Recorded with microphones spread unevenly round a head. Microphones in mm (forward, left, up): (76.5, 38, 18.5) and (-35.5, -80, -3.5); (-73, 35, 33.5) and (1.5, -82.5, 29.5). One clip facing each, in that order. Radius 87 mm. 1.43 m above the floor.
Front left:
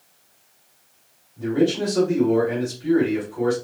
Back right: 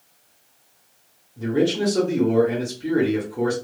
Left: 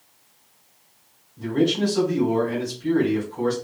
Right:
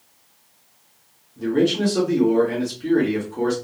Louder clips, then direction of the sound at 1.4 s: Front left 1 dB, right 2 dB; 95° right.